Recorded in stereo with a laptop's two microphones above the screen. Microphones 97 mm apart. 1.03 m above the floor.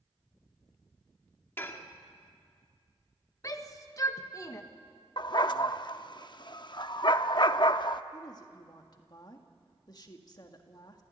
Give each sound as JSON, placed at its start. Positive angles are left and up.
{"t": 1.6, "sound": "dishes clattering", "side_deg": 20, "distance_m": 1.4}
{"t": 3.4, "sound": "a shout", "side_deg": 35, "distance_m": 1.3}
{"t": 5.2, "sound": "a dog barking", "side_deg": 50, "distance_m": 0.6}
{"t": 8.1, "sound": "a woman speaking", "side_deg": 40, "distance_m": 1.7}